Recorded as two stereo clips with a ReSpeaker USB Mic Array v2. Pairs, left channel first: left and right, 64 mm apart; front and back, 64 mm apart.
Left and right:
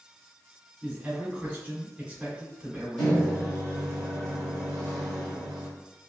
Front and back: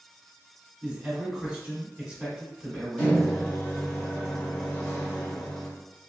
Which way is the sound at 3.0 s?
35° left.